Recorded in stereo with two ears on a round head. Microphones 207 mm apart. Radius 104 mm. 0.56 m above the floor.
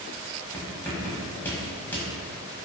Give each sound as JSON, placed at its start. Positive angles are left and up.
{"t": 0.5, "sound": "writing", "side_deg": 10, "distance_m": 1.0}